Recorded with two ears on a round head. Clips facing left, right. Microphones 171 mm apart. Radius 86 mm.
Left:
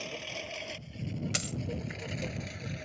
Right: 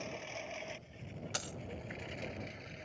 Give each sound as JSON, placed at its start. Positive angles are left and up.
{"t": 0.0, "sound": "a lawn mower", "side_deg": 45}
{"t": 1.3, "sound": "a dropped coin", "side_deg": 30}